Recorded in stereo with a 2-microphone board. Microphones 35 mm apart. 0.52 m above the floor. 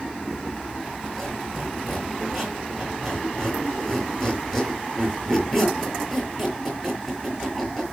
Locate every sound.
1.0 s a squeak: centre (ahead or behind), 6 m